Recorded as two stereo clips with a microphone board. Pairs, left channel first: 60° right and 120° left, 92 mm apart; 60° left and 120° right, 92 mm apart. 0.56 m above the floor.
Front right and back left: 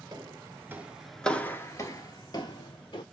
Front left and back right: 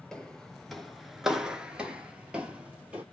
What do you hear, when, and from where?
0.1 s footsteps: 140° left, 0.7 m; by 3.0 s 45° right, 1.1 m